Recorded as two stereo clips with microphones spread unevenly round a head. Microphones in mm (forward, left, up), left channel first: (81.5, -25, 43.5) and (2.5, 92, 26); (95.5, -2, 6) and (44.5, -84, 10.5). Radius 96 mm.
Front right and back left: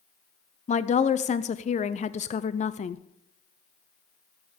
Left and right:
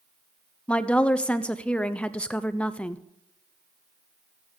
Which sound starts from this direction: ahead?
A woman speaking, at 0.7 s.